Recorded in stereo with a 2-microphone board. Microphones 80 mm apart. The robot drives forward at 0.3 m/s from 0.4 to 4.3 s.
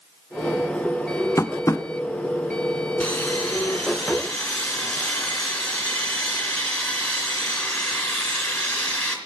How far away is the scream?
No scream in this recording.